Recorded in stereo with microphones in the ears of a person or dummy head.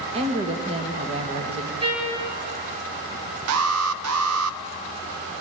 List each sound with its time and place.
0.1 s a woman speaking: 30° right (ahead or behind), 1.7 m
1.8 s a trumpet: 30° right (ahead or behind), 6.5 m
3.5 s an alarm: 85° right, 0.7 m